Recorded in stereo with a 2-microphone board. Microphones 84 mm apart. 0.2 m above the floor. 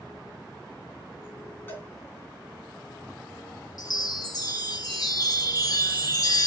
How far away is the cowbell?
About 2 m.